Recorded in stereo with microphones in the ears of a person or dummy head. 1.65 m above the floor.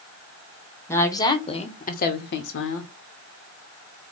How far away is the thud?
No thud in this recording.